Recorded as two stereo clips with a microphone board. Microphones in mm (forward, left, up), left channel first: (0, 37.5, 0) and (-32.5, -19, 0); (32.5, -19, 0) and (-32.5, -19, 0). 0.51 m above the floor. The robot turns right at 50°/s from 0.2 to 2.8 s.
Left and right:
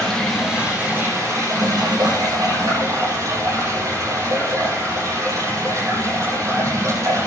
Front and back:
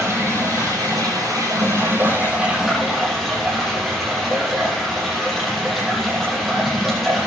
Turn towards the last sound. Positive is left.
turn(degrees=-90)